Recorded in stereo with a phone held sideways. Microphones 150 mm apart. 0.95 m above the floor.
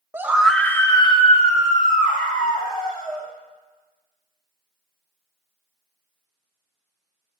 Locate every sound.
0.1 s a scream: 15° right (ahead or behind), 1.1 m; by 3.3 s 70° left (ahead or behind), 3 m